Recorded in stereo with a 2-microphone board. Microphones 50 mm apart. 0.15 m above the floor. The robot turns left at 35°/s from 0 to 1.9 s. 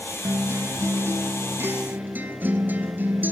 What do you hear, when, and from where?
0.2 s a guitar: 80° right, 0.8 m; by 3.3 s 135° right, 0.8 m